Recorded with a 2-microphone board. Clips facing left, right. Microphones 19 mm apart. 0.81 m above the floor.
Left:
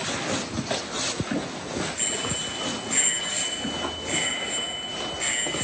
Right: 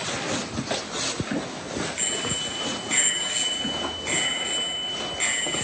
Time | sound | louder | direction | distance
2.0 | a bicycle bell | right 1 dB | 75° right (ahead or behind) | 5.5 m